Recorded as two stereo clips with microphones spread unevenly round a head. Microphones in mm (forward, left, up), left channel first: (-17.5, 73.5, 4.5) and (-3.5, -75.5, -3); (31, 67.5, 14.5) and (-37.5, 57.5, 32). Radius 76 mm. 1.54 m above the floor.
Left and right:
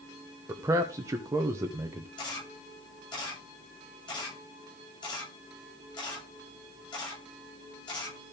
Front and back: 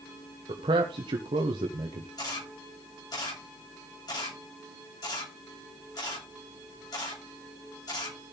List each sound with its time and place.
0.5 s a man speaking: 160° right, 1.0 m
2.2 s a camera shutter: 30° left, 8 m